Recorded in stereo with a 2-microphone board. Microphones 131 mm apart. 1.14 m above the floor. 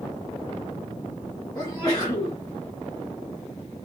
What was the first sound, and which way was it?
A sneeze, 30° left (ahead or behind).